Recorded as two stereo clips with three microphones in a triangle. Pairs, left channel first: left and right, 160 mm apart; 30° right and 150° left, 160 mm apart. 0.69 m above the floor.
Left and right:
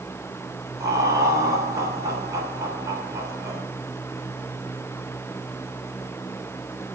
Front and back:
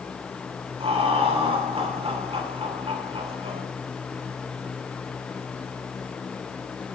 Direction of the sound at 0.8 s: 160° right.